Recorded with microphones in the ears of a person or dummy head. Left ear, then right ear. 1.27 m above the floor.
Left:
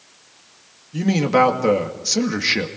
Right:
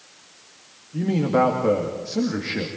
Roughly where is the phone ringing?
I don't hear a phone ringing.